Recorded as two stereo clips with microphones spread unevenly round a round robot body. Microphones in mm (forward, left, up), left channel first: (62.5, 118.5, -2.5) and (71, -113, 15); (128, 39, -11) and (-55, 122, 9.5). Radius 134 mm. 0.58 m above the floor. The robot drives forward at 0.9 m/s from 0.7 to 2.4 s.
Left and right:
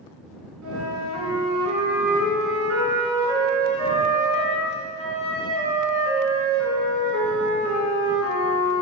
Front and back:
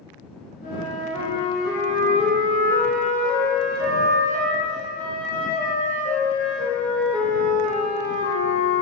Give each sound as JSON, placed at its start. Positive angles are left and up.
{"t": 0.6, "sound": "a flute", "azimuth_deg": -95, "distance_m": 2.5}